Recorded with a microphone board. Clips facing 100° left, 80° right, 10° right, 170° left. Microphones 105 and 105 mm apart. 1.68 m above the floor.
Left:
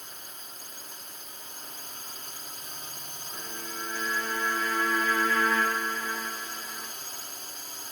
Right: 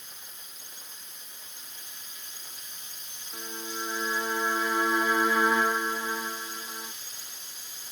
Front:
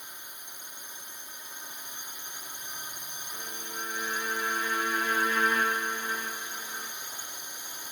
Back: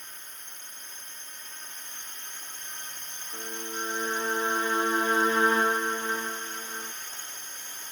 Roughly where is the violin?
Behind right.